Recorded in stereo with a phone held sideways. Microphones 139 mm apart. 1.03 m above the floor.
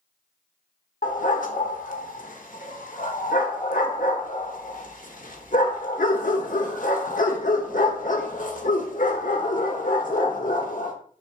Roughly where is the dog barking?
Left.